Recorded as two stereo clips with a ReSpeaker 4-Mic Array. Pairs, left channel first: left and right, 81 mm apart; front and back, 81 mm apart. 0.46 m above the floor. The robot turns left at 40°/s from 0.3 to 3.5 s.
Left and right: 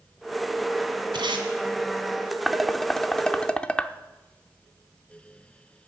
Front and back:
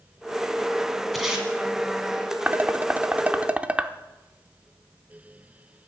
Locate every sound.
1.1 s tape being pulled: 90° right, 2 m; by 1.5 s 105° right, 2 m
2.5 s dishes clattering: straight behind, 0.6 m; by 3.9 s 140° left, 0.6 m